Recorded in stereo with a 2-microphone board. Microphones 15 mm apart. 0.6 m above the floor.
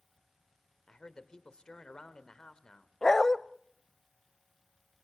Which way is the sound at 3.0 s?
35° left (ahead or behind).